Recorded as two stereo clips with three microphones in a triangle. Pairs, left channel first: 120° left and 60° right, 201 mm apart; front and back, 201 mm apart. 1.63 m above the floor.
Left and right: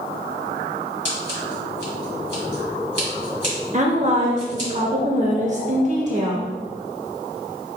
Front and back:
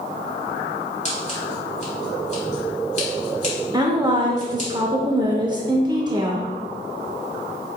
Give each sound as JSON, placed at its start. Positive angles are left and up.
{"t": 1.1, "sound": "scissors", "azimuth_deg": -30, "distance_m": 1.9}
{"t": 3.7, "sound": "a woman speaking", "azimuth_deg": -110, "distance_m": 0.6}